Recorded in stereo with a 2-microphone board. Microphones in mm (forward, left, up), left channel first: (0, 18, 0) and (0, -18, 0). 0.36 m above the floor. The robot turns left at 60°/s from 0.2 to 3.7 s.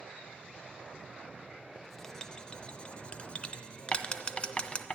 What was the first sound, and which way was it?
Writing, centre (ahead or behind).